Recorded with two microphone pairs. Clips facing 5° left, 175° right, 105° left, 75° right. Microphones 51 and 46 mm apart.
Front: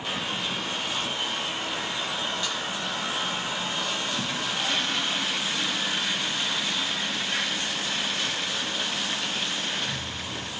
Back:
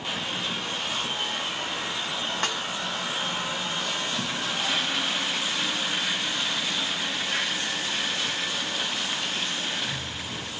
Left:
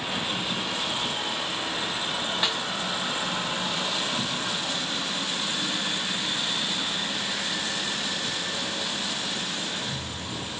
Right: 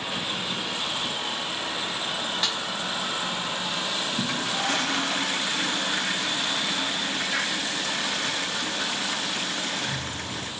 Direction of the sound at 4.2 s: 85° right.